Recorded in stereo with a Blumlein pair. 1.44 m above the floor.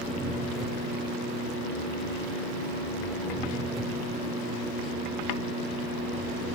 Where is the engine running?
Straight ahead, 3 m.